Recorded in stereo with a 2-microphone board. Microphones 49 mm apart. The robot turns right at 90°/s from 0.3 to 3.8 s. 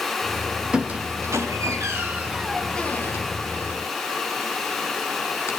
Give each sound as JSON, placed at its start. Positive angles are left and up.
{"t": 0.7, "sound": "a squeak", "side_deg": -20, "distance_m": 3.5}